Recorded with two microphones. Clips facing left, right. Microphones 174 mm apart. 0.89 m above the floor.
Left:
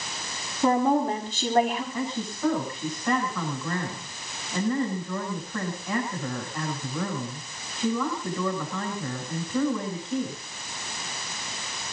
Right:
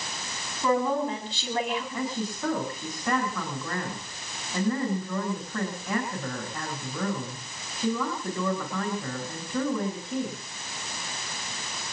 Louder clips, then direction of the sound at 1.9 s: Even; centre (ahead or behind).